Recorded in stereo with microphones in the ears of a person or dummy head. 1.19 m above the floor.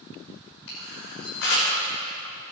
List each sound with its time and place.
0.7 s a camera shutter: 60° left (ahead or behind), 6 m